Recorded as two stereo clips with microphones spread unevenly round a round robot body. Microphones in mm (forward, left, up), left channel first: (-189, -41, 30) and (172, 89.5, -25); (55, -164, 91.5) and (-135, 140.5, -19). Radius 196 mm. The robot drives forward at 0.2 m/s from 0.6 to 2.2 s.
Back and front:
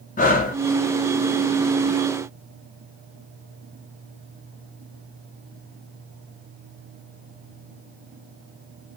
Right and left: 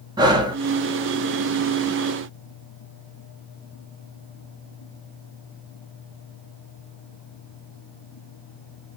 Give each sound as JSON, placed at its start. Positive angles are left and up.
{"t": 0.2, "sound": "breathing", "azimuth_deg": 135, "distance_m": 0.6}